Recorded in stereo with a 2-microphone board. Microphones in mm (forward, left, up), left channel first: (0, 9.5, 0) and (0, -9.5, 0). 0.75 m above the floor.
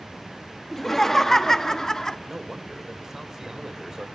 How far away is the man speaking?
About 2.5 m.